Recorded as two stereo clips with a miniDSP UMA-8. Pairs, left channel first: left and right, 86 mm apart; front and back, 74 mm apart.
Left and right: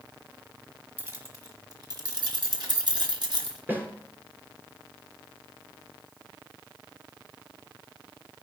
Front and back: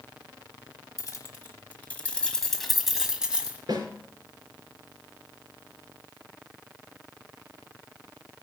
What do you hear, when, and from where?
1.0 s keys jangling: 40° right, 1.5 m; by 3.6 s 105° right, 1.9 m
3.7 s a snare drum: 155° right, 3.5 m